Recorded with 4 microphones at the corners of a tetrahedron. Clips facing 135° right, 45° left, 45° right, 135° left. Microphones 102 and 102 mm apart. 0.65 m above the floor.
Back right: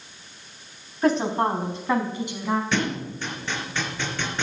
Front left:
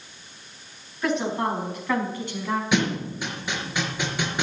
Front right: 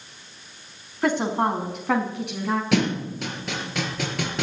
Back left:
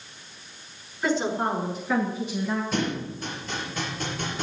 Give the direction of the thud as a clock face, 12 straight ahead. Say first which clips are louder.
Front left 2 dB, front right 5 dB; 1 o'clock.